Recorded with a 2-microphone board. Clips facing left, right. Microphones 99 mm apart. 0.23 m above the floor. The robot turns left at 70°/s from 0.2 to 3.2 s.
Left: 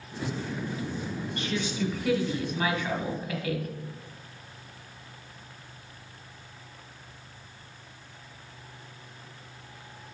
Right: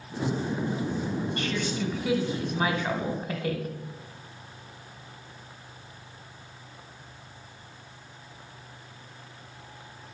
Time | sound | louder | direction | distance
1.4 | a woman speaking | right 1 dB | 45° left | 1.2 m